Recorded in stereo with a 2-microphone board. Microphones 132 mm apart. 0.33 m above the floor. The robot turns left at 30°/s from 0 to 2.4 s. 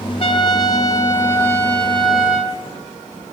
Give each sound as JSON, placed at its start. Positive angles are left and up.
{"t": 0.2, "sound": "a trumpet", "azimuth_deg": 55, "distance_m": 1.7}